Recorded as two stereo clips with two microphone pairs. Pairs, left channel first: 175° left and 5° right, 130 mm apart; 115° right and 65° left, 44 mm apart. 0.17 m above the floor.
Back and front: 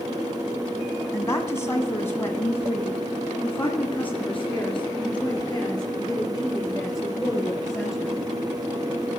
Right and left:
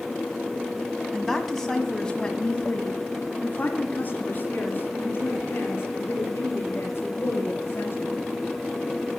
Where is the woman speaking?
150° left, 1.7 m; by 8.2 s 100° right, 4 m.